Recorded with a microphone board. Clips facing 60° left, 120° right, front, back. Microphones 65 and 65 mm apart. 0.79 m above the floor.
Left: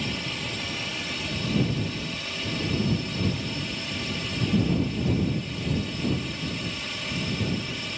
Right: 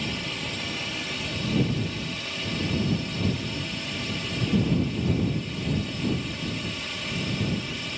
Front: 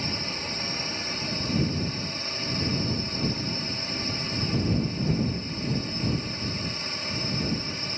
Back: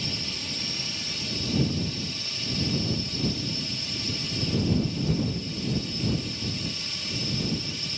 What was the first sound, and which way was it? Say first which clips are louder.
A drone: even, front 3 dB; 30° right.